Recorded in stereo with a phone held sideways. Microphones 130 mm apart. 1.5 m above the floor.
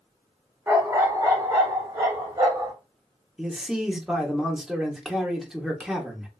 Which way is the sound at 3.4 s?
5° right (ahead or behind).